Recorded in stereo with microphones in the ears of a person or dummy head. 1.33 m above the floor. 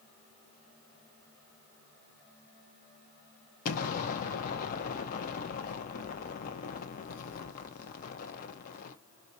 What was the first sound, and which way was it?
An explosion, 50° left (ahead or behind).